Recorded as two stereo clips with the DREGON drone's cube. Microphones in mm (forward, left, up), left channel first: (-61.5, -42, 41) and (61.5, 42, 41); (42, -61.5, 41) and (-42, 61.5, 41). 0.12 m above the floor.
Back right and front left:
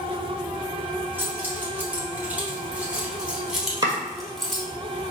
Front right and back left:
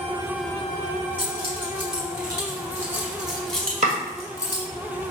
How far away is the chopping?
About 1.3 m.